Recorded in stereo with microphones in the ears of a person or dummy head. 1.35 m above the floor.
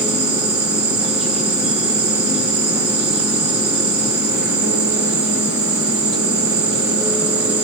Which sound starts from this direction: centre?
An insect, at 0.0 s.